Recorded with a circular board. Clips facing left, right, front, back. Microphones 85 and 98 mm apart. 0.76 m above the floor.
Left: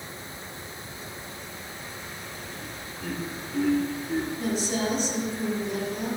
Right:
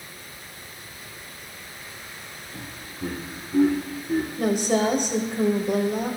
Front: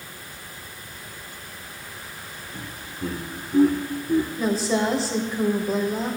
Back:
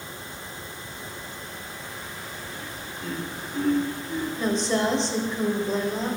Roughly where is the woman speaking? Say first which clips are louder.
Right 6 dB, front 1 dB; right.